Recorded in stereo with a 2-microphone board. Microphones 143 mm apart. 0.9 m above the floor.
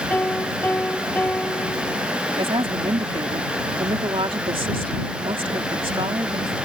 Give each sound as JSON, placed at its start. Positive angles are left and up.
{"t": 0.1, "sound": "a piano", "side_deg": 10}
{"t": 2.4, "sound": "a woman speaking", "side_deg": -40}